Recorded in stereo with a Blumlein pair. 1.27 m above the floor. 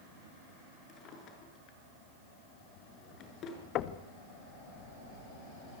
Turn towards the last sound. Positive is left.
turn(degrees=35)